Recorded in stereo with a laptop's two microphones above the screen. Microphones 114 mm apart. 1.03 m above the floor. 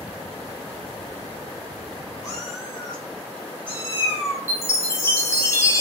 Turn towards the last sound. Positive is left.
turn(degrees=25)  # may be behind; listen again after turning